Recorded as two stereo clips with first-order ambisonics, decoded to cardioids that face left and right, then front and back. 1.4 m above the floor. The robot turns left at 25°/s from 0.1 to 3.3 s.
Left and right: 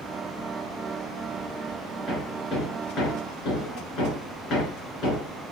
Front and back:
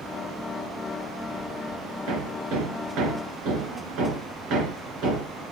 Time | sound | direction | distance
2.1 | hammering | 170° left | 4.5 m